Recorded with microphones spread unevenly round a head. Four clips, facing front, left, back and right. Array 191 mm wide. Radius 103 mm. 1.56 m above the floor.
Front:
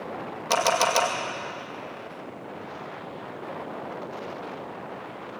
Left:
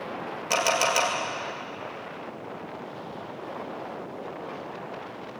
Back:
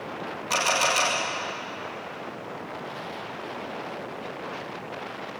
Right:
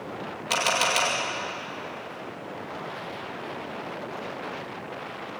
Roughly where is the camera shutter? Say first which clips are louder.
Left 1 dB, front 3 dB; ahead left.